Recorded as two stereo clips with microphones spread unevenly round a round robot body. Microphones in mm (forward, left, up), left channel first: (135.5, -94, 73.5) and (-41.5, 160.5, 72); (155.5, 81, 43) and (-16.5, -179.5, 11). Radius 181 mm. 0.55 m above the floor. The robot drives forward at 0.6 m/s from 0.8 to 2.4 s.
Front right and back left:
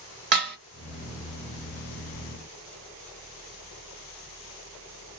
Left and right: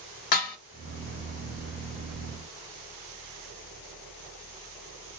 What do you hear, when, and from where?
0.3 s dishes clattering: 70° left, 1.4 m